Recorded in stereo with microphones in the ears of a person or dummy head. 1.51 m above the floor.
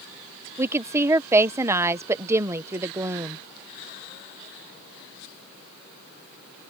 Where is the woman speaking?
15° right (ahead or behind).